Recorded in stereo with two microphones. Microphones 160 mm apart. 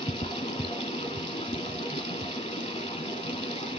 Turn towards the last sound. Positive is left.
turn(degrees=35)  # may be behind; listen again after turning